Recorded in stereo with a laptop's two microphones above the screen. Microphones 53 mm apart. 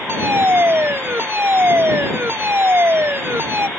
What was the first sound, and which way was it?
A fire alarm, 50° right (ahead or behind).